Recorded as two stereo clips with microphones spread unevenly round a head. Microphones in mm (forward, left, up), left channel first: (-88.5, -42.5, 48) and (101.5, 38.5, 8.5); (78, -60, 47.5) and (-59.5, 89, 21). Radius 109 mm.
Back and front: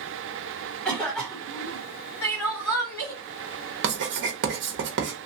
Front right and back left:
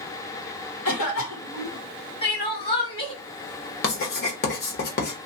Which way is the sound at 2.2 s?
90° right.